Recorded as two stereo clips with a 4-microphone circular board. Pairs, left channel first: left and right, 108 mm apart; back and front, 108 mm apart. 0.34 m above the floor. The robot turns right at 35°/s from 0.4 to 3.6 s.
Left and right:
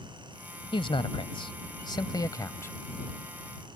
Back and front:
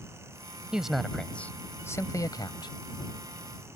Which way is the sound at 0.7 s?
80° left.